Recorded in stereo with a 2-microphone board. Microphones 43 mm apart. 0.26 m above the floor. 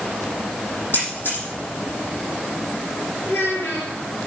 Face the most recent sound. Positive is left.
turn(degrees=80)